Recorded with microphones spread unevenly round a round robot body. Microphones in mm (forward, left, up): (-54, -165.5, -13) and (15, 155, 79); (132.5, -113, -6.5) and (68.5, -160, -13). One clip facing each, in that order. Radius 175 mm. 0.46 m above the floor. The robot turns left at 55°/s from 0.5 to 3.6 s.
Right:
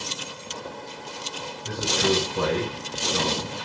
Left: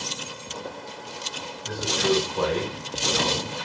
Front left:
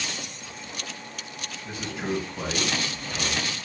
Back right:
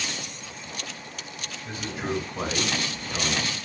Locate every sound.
1.6 s a man speaking: 85° right, 3 m; by 3.5 s 170° left, 3 m